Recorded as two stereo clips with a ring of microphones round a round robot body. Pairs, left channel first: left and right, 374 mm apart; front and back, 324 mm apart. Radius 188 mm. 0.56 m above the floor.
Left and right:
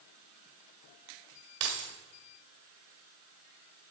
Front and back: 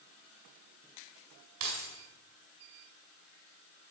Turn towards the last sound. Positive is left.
turn(degrees=-140)